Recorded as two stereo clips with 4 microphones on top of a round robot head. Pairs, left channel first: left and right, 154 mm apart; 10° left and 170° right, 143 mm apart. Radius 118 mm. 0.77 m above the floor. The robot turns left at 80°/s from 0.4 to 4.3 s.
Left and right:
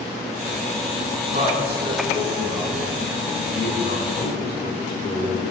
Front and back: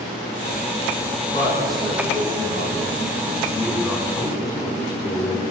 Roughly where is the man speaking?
Ahead right.